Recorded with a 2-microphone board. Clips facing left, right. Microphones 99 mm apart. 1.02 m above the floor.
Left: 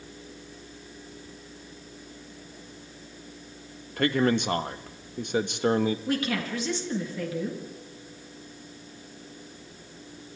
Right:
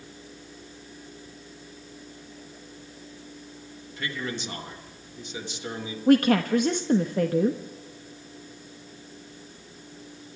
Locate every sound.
4.0 s a man speaking: 60° left (ahead or behind), 1.3 m
6.1 s a woman speaking: 50° right (ahead or behind), 1.4 m